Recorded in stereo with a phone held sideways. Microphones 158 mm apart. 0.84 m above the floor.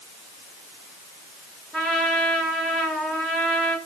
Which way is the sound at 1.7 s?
5° left (ahead or behind).